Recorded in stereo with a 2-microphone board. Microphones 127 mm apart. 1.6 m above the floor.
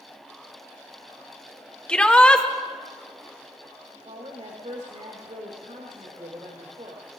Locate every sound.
1.9 s a shout: 10° left (ahead or behind), 1.2 m
4.0 s a woman speaking: 75° right (ahead or behind), 2.5 m